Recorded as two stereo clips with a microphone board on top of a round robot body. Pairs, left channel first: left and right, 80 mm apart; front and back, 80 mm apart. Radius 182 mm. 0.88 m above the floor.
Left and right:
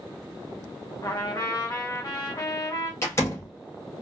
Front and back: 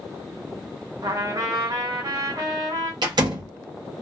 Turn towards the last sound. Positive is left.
turn(degrees=150)